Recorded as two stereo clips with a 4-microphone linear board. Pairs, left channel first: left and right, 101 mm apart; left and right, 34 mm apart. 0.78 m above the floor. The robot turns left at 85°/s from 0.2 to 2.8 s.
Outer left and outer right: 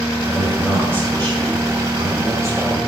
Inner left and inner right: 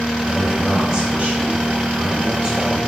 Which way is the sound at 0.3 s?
30° left.